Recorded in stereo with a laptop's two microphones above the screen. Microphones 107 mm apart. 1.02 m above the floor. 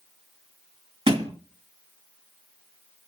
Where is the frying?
I don't hear frying.